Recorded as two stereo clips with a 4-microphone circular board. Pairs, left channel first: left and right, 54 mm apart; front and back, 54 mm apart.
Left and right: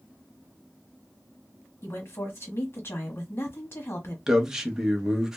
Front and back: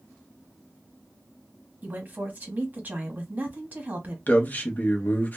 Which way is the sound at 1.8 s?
125° left.